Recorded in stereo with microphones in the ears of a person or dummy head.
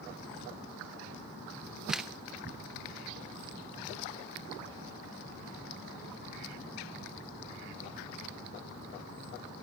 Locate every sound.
1.9 s a camera shutter: 5° right (ahead or behind), 0.8 m